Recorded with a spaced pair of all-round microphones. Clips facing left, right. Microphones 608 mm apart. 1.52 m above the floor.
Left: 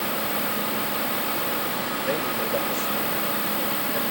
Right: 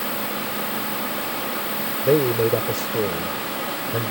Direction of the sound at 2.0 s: 85° right.